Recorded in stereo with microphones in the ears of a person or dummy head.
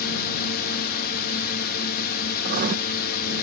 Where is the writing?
45° right (ahead or behind).